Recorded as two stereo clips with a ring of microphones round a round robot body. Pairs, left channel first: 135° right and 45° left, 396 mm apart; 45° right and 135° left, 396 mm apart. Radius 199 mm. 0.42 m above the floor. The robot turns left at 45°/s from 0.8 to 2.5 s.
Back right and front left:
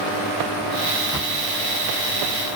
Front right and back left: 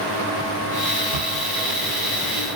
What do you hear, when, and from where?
1.1 s a cupboard door: 130° left, 3.5 m; by 1.5 s 110° left, 3.5 m